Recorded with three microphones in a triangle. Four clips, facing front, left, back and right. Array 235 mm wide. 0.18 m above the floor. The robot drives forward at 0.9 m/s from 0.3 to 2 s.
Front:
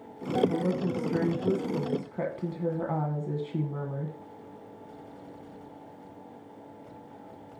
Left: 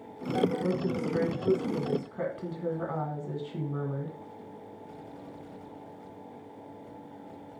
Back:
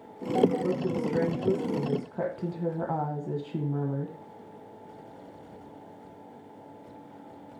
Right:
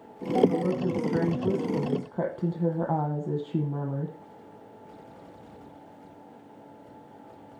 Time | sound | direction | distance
0.5 | a woman speaking | 45° right | 2 m